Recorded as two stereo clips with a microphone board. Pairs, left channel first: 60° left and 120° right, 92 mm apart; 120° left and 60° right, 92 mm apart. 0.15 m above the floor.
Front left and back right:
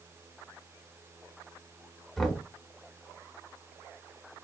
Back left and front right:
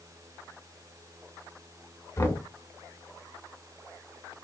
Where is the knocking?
145° left, 0.8 m.